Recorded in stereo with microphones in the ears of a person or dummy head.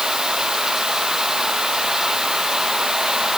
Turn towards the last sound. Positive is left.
turn(degrees=0)  # may be behind; listen again after turning